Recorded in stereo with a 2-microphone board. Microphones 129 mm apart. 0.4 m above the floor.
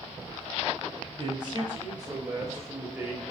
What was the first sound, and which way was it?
A man speaking, 45° right (ahead or behind).